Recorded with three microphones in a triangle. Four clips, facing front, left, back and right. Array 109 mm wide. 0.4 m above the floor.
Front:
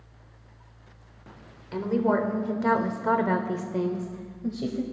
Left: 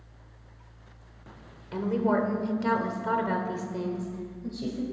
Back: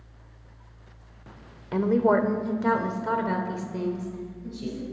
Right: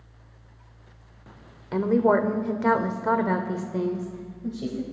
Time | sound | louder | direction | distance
1.7 | a woman speaking | right 6 dB, back 3 dB | 135° right | 1.0 m